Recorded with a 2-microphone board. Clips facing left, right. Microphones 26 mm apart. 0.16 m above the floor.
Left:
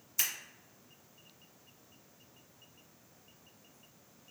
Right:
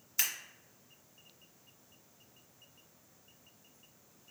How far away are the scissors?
About 1.5 m.